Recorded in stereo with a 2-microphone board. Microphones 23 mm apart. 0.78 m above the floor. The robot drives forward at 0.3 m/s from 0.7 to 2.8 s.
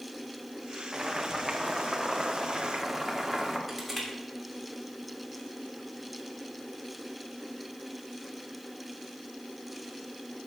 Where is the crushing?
Centre (ahead or behind), 3 m.